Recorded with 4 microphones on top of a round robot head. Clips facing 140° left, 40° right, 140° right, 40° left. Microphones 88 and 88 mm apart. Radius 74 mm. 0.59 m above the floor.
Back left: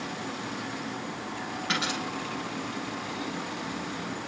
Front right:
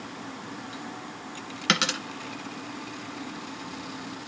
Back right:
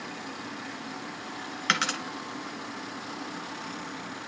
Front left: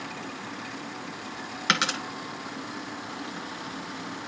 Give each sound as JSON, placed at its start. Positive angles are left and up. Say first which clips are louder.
{"t": 1.7, "sound": "a dropped coin", "louder": "front right 5 dB, front left 2 dB", "azimuth_deg": -40, "distance_m": 1.6}